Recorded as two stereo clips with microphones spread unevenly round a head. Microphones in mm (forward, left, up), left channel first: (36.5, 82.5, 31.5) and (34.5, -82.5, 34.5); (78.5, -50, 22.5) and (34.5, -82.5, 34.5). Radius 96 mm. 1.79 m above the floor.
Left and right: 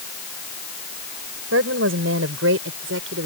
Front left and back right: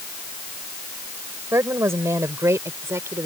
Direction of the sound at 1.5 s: 115° right.